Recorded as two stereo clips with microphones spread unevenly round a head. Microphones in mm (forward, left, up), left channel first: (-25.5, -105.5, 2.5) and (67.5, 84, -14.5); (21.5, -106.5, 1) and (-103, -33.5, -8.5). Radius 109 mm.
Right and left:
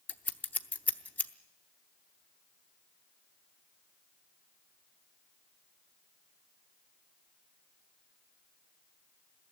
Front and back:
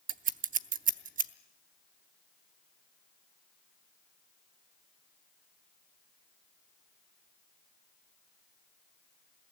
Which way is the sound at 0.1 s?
165° left.